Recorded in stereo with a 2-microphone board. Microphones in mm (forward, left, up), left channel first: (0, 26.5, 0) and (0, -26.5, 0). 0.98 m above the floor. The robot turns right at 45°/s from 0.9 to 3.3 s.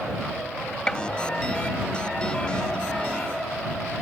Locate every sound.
0.9 s a gunshot: 20° left (ahead or behind); by 1.0 s 15° left (ahead or behind)